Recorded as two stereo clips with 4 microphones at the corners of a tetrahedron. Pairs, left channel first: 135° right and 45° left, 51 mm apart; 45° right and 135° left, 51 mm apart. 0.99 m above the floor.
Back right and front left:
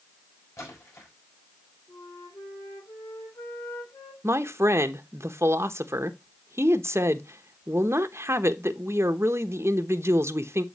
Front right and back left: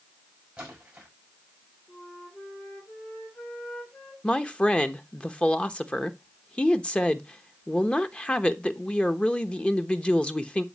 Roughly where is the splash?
Behind.